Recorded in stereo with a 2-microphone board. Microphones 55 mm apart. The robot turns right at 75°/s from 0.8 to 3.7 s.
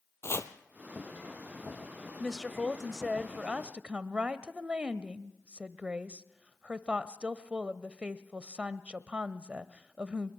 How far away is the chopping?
About 1.4 m.